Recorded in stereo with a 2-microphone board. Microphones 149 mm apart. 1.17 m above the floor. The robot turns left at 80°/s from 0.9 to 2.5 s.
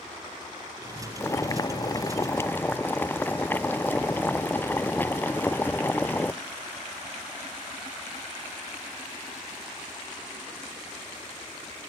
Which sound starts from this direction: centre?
Boiling, at 1.2 s.